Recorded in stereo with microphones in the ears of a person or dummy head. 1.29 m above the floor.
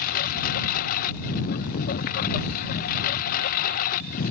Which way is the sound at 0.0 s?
50° left (ahead or behind).